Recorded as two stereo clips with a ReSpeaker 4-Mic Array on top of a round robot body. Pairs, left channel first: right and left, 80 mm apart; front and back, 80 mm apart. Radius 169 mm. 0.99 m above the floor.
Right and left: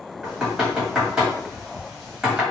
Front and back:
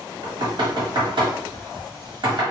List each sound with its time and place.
0.2 s knocking: 175° left, 1.3 m